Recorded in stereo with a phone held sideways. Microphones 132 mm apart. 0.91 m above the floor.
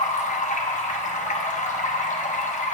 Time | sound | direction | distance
0.0 | running water | 70° left (ahead or behind) | 1.0 m